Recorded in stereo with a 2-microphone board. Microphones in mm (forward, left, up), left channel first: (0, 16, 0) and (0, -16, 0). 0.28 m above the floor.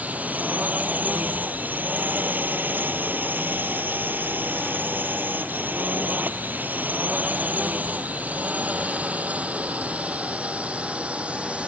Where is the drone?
55° right (ahead or behind); by 11.7 s 40° right (ahead or behind).